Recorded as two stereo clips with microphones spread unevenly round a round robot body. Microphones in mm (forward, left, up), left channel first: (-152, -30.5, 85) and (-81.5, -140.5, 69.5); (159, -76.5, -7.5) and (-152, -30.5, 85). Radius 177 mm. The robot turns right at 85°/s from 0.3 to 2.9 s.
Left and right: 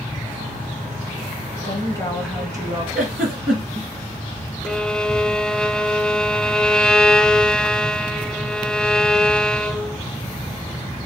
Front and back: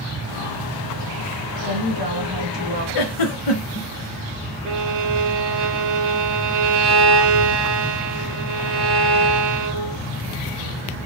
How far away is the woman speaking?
About 2 m.